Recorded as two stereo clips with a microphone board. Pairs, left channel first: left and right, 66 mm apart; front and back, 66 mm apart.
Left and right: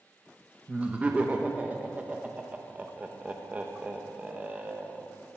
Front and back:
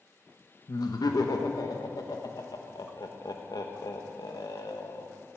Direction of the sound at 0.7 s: 20° right.